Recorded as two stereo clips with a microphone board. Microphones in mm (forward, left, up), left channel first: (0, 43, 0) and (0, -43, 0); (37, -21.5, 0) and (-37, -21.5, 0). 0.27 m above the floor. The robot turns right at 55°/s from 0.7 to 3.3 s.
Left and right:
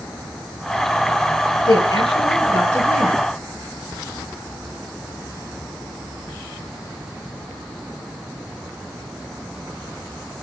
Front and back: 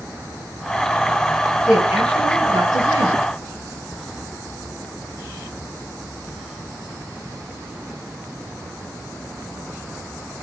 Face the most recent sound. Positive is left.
turn(degrees=-165)